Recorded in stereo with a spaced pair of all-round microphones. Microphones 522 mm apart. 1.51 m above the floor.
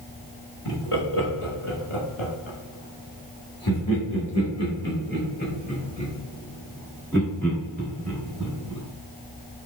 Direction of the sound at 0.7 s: 85° left.